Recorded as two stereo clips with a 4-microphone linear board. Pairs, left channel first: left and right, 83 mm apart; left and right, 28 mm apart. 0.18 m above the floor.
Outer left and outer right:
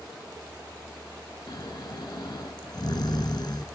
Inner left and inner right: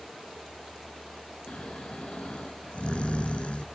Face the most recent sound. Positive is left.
turn(degrees=60)  # may be behind; listen again after turning